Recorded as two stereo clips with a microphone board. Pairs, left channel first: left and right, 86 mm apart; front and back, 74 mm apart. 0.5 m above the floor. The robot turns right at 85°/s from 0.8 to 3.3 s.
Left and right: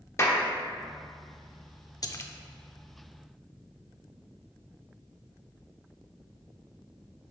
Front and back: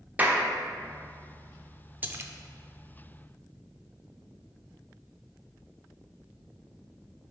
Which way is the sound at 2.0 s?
120° left.